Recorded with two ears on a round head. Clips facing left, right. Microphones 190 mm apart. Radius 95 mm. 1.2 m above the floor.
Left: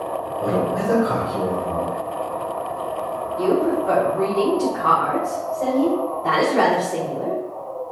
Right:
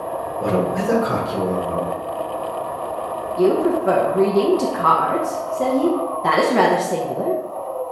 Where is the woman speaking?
75° right (ahead or behind), 0.6 m.